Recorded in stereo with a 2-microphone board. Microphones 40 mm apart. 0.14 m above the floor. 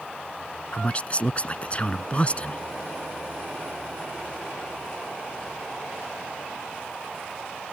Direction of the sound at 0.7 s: 35° left (ahead or behind).